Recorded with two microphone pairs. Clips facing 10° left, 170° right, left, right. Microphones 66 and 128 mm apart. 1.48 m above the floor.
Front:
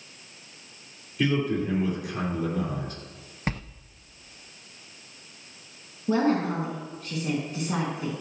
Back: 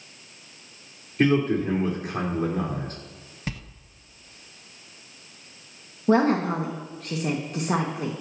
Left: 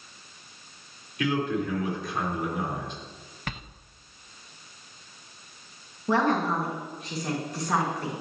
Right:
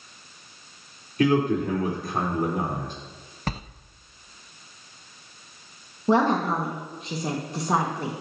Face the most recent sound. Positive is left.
turn(degrees=-150)